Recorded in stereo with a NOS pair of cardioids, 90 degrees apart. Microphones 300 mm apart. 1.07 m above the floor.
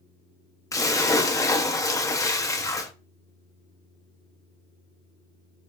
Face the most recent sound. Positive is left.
turn(degrees=10)